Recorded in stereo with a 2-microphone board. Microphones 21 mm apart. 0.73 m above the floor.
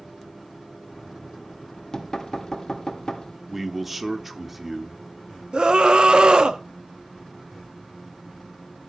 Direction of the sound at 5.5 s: 45° right (ahead or behind).